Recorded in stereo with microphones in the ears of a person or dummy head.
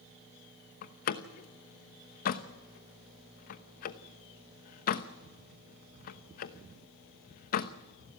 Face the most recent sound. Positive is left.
turn(degrees=50)  # may be behind; listen again after turning